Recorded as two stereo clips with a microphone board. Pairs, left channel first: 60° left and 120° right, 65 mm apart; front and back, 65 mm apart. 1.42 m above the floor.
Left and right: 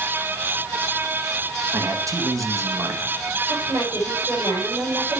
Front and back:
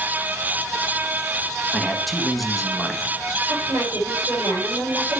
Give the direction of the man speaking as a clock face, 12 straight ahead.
3 o'clock.